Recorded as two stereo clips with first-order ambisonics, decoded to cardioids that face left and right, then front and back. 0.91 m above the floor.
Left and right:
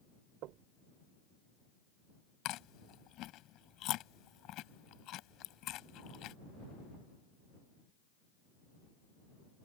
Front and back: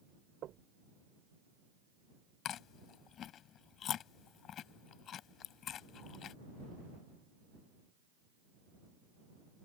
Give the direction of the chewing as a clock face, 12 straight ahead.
10 o'clock.